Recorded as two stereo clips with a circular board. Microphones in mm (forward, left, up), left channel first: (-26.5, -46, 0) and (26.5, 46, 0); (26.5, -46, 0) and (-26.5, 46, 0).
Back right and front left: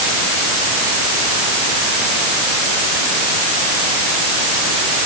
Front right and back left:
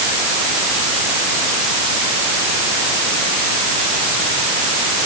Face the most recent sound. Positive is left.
No sound to turn to.